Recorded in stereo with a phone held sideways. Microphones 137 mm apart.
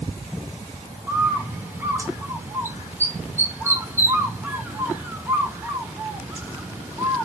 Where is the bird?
15° right (ahead or behind), 1.1 m.